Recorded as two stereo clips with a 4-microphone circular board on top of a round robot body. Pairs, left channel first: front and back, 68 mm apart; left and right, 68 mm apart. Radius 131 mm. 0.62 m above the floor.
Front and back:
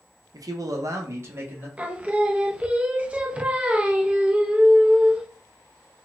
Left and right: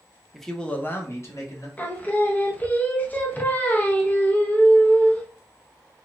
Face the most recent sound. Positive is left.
turn(degrees=125)